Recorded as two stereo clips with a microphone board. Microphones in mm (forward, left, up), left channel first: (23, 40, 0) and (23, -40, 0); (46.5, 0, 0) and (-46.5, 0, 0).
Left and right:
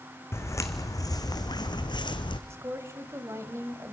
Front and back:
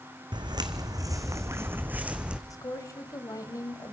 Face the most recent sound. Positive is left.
turn(degrees=-45)